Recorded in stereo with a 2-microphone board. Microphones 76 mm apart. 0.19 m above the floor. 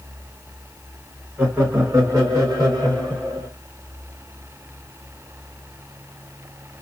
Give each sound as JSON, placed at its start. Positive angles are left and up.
{"t": 1.4, "sound": "laughter", "side_deg": -25, "distance_m": 1.3}